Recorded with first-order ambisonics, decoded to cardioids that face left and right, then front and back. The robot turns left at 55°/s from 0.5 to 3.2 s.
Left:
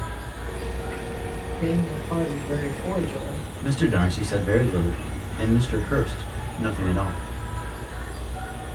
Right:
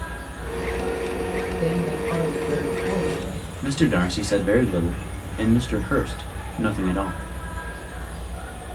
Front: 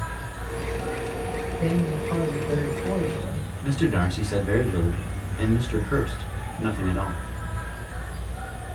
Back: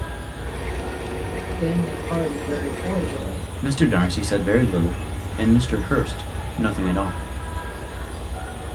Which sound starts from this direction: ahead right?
An insect, at 0.0 s.